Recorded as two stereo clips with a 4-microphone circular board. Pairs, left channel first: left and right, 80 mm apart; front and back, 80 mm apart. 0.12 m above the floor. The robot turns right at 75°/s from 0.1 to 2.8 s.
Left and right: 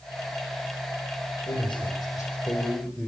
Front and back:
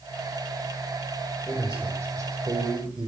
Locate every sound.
1.5 s a man speaking: 85° left, 5.5 m; by 3.1 s 175° right, 5.5 m